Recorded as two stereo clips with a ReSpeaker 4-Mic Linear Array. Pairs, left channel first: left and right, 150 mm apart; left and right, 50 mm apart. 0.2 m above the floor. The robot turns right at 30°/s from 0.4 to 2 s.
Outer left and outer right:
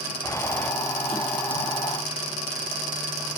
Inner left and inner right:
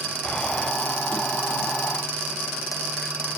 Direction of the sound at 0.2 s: 20° left (ahead or behind).